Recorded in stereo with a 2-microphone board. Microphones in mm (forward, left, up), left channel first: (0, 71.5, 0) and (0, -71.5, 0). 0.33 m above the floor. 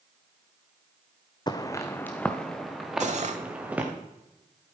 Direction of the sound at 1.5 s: 30° left (ahead or behind).